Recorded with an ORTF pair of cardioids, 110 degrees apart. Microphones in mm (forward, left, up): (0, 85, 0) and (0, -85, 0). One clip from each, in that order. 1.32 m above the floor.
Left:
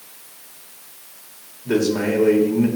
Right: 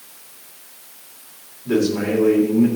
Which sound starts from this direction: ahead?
A man speaking, at 1.6 s.